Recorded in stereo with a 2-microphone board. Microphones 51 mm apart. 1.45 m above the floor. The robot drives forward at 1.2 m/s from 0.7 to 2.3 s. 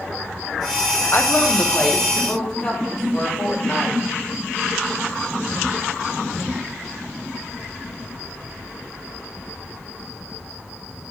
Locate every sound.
1.1 s a woman speaking: 45° left (ahead or behind), 0.6 m; by 4.0 s 10° left (ahead or behind), 1.9 m